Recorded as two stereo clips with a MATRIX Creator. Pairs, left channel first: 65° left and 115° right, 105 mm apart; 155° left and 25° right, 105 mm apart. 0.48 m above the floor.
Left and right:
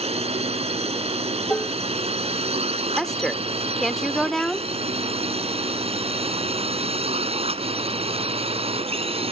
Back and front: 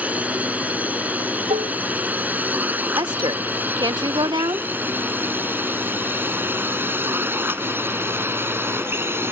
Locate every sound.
0.0 s a drone: 100° right; by 9.3 s 90° right
1.5 s dishes clattering: 10° right
3.0 s a woman speaking: 20° right